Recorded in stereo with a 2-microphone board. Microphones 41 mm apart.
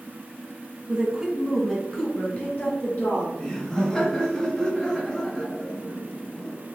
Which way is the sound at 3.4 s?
20° left (ahead or behind).